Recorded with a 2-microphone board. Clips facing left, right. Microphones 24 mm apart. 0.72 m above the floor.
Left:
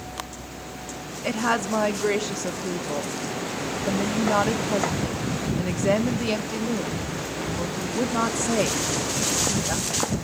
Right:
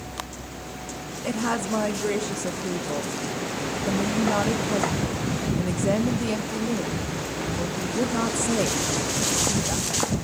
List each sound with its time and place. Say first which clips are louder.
1.2 s a woman speaking: left 2 dB; 35° left (ahead or behind), 0.8 m